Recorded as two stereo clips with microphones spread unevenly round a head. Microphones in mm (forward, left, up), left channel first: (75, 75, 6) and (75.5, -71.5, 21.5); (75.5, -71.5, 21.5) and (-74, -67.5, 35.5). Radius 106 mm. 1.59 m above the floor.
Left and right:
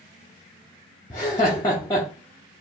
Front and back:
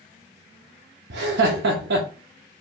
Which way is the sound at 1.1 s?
165° left.